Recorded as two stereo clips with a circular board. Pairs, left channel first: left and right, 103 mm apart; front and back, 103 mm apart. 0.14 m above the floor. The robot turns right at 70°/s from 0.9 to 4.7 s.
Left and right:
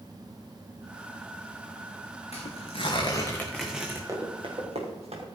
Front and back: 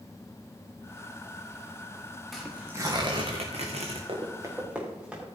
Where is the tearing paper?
85° left, 3 m; by 4.0 s 155° right, 3 m.